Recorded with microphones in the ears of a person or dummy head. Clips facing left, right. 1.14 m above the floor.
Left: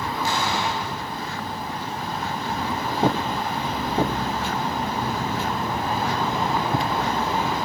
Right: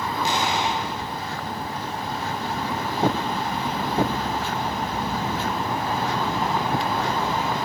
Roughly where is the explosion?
Centre.